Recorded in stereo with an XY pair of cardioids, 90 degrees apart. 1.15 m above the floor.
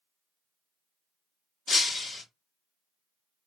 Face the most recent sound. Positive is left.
turn(degrees=60)